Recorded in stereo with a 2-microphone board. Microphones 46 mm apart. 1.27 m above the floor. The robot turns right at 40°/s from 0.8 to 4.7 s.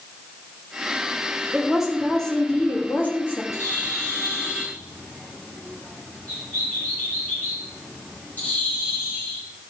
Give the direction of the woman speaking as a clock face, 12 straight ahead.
1 o'clock.